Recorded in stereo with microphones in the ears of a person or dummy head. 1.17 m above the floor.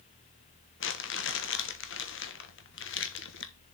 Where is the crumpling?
60° left (ahead or behind), 1.3 m.